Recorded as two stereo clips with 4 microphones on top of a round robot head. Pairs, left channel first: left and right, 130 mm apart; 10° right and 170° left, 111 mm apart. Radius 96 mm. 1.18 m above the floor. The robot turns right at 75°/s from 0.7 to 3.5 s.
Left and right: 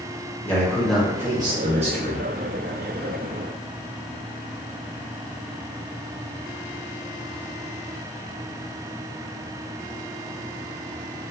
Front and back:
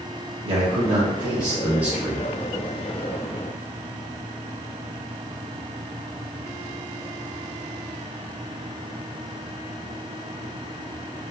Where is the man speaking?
160° left, 1.1 m; by 2.3 s 80° right, 1.1 m.